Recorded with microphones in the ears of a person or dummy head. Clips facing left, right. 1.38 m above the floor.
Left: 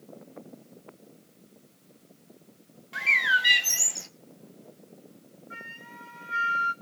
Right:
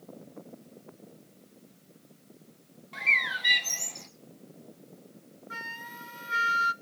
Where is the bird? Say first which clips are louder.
Left 5 dB; 5° left (ahead or behind), 1.2 m.